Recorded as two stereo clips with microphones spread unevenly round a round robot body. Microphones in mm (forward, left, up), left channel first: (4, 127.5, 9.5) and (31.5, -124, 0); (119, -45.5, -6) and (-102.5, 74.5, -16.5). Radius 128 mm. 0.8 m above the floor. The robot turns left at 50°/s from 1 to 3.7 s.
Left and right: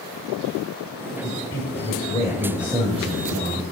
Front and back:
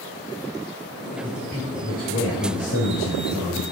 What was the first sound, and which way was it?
A man speaking, 70° left.